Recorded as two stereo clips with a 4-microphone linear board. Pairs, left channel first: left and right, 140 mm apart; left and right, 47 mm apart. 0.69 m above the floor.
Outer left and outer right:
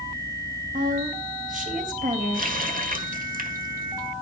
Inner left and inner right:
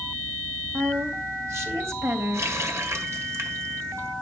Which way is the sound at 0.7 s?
70° right (ahead or behind).